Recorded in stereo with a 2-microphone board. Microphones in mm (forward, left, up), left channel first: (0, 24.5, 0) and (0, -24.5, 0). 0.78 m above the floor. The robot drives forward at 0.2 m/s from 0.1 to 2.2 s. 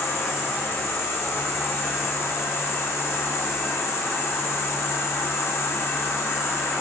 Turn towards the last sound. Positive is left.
turn(degrees=70)  # may be behind; listen again after turning